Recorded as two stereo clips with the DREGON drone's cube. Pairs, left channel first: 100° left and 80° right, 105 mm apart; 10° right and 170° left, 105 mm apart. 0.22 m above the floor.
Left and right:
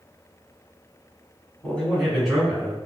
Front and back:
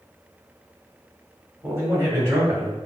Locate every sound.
1.6 s a man speaking: 160° left, 1.7 m; by 2.8 s 155° right, 2.0 m